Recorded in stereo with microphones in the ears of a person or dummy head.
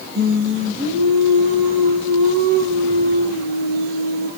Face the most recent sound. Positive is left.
turn(degrees=-60)  # may be behind; listen again after turning